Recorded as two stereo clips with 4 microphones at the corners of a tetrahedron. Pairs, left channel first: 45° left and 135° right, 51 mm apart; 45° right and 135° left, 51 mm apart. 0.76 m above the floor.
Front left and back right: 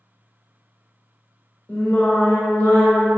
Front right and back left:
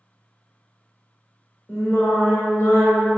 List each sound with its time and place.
1.7 s singing: 5° right, 0.9 m